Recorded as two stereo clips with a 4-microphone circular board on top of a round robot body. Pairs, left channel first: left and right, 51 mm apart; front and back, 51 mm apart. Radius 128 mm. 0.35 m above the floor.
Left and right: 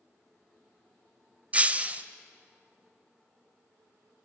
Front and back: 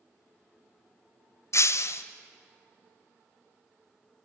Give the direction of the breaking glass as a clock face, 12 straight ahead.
1 o'clock.